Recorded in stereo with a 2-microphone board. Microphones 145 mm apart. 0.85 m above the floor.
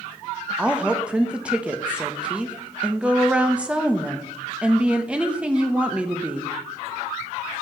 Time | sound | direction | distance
0.6 | a woman speaking | 5° right (ahead or behind) | 0.5 m